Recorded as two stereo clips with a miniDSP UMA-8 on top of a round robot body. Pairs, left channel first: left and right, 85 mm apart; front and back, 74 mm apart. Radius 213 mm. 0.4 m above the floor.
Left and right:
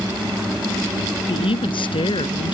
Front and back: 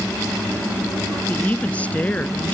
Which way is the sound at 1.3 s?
75° left.